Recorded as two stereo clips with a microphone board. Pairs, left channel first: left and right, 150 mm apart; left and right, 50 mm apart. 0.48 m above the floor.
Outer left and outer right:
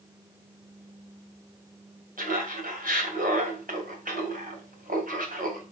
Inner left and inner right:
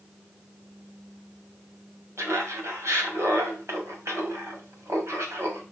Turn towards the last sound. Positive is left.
turn(degrees=-65)  # may be behind; listen again after turning